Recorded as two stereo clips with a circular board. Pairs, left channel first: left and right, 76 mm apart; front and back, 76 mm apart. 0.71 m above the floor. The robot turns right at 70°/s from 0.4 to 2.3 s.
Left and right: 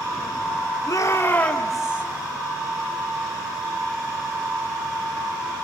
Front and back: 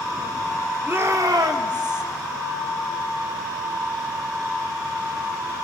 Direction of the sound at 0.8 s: 120° left.